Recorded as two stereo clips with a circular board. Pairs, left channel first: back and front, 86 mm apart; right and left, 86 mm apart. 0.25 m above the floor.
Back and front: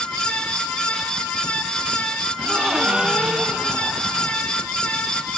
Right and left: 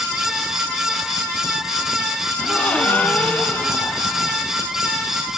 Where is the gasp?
55° right, 1.3 m.